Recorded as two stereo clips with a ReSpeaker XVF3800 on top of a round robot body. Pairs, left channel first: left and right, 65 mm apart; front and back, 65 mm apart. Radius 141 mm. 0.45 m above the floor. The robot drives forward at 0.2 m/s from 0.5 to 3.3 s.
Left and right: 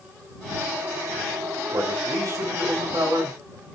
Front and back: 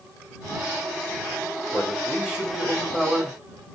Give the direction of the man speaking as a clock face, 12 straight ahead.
3 o'clock.